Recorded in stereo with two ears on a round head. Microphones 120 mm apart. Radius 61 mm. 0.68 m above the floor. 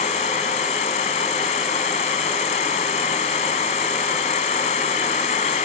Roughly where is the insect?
Left.